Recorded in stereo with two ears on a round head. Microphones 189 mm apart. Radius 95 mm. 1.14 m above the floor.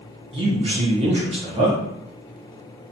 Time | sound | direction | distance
0.3 | a man speaking | 25° right (ahead or behind) | 0.6 m